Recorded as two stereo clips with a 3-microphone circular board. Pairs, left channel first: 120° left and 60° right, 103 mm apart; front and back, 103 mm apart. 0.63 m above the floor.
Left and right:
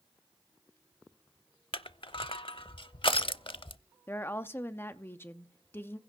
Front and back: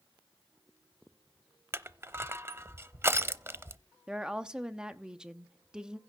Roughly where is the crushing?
Behind left.